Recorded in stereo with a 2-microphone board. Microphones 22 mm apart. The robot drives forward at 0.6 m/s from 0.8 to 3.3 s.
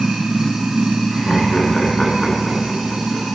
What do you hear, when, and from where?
0.0 s running water: 85° right, 3 m; by 3.4 s 65° right (ahead or behind), 3 m
1.1 s laughter: 20° left (ahead or behind), 1.5 m